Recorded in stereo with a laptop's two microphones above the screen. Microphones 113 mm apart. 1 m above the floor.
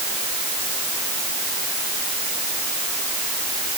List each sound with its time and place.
Only background noise.